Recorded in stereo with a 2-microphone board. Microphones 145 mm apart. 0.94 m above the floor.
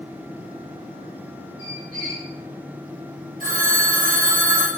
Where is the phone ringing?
70° right (ahead or behind), 0.7 m.